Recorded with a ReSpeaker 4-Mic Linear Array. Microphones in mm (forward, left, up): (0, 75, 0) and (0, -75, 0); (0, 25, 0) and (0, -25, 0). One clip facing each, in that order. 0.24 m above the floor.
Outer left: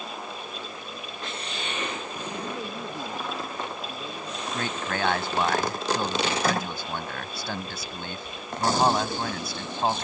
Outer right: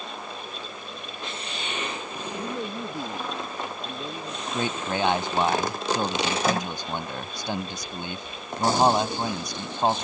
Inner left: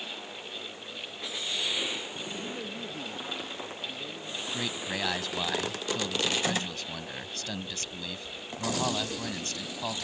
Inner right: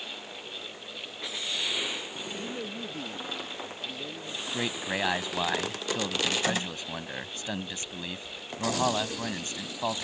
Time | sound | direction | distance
2.3 | a man speaking | 20° right (ahead or behind) | ?
4.5 | a man speaking | 20° right (ahead or behind) | ?